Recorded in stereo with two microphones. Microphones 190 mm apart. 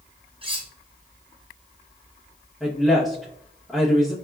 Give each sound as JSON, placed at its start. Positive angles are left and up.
{"t": 0.4, "sound": "cutlery clinking", "side_deg": -30, "distance_m": 0.6}
{"t": 2.6, "sound": "a woman speaking", "side_deg": 5, "distance_m": 0.7}